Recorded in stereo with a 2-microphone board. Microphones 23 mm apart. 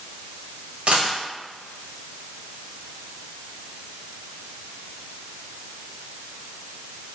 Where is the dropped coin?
70° right (ahead or behind), 1.2 m.